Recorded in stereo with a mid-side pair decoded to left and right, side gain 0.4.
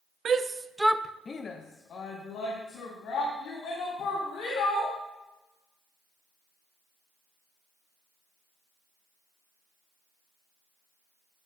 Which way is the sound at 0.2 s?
55° right.